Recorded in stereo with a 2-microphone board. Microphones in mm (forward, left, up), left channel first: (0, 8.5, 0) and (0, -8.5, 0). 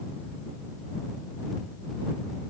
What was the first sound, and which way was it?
Only background noise.